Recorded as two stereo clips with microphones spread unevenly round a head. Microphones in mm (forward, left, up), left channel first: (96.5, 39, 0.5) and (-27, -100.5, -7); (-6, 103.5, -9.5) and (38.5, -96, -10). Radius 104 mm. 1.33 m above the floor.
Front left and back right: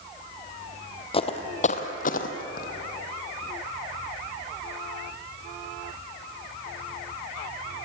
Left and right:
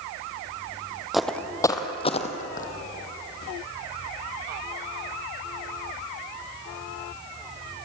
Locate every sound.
1.1 s footsteps: 10° left, 1.7 m; by 2.7 s 70° left, 2 m